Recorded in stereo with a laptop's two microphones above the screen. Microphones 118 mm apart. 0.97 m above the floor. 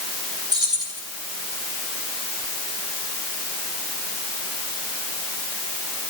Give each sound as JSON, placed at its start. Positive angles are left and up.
{"t": 0.5, "sound": "keys jangling", "side_deg": -35, "distance_m": 4.5}